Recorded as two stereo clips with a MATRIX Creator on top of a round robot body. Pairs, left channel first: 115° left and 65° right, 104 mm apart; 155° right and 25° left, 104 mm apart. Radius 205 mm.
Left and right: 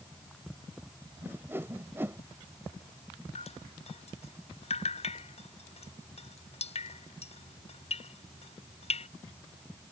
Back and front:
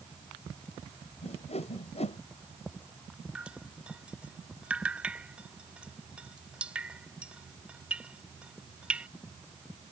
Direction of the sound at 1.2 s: 140° right.